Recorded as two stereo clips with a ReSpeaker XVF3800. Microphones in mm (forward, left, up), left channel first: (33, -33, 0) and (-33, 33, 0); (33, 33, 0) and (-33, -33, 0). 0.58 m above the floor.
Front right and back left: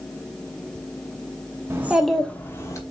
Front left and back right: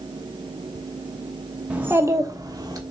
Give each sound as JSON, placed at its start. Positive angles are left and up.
{"t": 1.7, "sound": "a child speaking", "azimuth_deg": 165, "distance_m": 0.8}